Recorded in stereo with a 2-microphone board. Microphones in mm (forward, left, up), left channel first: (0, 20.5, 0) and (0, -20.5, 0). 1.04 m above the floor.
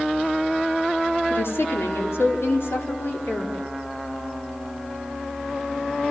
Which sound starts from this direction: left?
A woman speaking, at 1.3 s.